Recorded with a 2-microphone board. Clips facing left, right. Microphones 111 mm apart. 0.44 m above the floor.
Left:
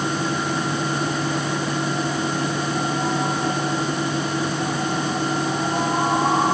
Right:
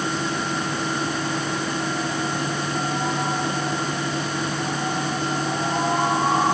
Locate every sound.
Only background noise.